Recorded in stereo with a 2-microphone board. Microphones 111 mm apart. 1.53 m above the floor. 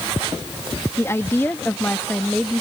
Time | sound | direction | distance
1.0 | a woman speaking | 25° left (ahead or behind) | ?